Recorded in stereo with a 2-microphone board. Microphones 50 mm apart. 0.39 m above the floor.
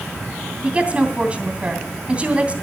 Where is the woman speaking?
25° right (ahead or behind), 2.5 m.